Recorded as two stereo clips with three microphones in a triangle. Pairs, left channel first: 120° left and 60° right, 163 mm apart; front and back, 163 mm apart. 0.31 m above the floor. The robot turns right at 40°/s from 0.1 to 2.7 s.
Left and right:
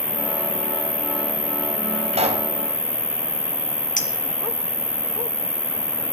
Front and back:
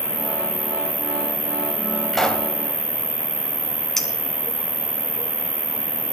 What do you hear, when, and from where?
0.0 s an insect: 70° left, 0.9 m; by 6.1 s 175° left, 0.9 m
2.1 s a pop: 90° right, 1.3 m; by 2.5 s 75° right, 1.3 m
4.0 s a clink: 85° left, 1.8 m